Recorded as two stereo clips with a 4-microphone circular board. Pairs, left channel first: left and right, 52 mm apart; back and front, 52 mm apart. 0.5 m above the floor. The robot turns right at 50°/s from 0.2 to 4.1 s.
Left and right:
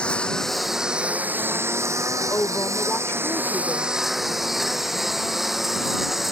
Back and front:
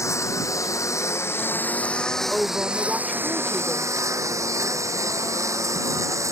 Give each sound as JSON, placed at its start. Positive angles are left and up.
{"t": 0.0, "sound": "a lawn mower", "azimuth_deg": 160}
{"t": 2.3, "sound": "a woman speaking", "azimuth_deg": 60}